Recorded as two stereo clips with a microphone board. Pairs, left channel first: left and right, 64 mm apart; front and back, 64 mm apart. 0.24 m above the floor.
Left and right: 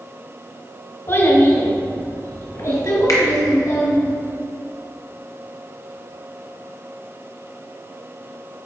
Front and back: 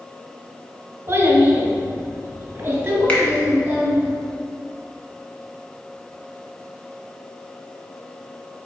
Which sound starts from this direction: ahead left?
A finger snap, at 3.1 s.